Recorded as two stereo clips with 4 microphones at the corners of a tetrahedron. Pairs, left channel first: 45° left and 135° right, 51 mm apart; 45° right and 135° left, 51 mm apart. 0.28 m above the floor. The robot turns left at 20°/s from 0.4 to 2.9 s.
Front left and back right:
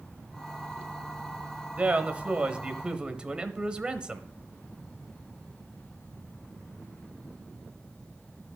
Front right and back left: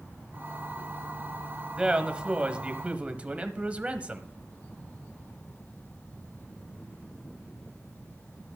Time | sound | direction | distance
1.8 | a man speaking | 165° right | 1.0 m